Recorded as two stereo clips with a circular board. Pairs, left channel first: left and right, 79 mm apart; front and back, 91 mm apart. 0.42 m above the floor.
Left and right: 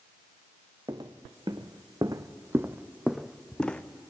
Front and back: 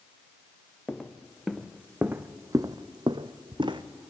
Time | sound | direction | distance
0.9 | footsteps | 85° right | 1.7 m